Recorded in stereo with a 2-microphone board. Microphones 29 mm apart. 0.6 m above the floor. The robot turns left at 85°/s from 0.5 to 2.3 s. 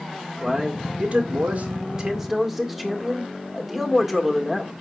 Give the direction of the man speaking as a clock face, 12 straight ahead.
12 o'clock.